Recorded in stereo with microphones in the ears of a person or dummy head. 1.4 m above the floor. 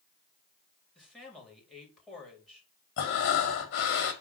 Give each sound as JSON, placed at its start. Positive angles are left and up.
{"t": 0.9, "sound": "a man speaking", "side_deg": 5, "distance_m": 3.5}
{"t": 3.0, "sound": "breathing", "side_deg": 60, "distance_m": 1.8}